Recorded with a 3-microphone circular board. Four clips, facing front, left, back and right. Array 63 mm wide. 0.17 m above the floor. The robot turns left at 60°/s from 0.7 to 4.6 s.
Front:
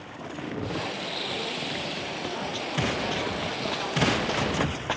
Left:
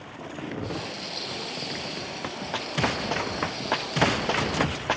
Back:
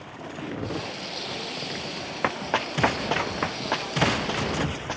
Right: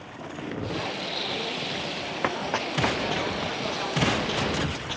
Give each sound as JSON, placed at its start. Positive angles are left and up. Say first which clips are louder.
{"t": 2.2, "sound": "running footsteps", "louder": "right 7 dB, back 9 dB", "azimuth_deg": -150}